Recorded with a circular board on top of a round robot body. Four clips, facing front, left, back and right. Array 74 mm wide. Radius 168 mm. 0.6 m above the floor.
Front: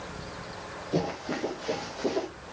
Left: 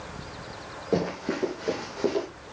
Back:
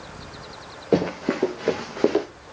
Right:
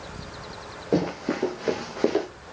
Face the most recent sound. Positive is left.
turn(degrees=-155)